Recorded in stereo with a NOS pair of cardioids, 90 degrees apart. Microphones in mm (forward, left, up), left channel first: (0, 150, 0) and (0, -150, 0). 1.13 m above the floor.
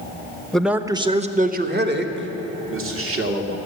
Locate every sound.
0.5 s a man speaking: 5° left, 0.8 m; by 3.6 s 50° right, 2 m